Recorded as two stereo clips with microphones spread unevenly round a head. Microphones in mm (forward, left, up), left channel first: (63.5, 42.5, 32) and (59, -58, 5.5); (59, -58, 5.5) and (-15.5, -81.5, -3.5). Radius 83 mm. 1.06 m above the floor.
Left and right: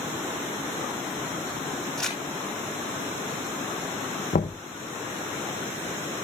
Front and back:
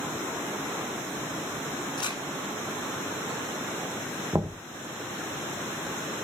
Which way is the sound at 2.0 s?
5° left.